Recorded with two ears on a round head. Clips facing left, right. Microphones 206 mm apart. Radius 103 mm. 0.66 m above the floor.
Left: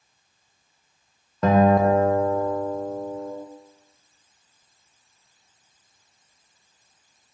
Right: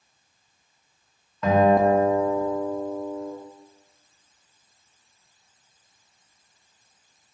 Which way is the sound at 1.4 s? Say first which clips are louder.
Left 1 dB; 35° left (ahead or behind).